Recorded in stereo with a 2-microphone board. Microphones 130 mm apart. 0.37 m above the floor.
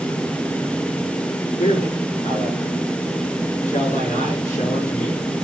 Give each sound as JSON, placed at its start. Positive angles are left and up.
{"t": 1.6, "sound": "a man speaking", "side_deg": 80, "distance_m": 5.5}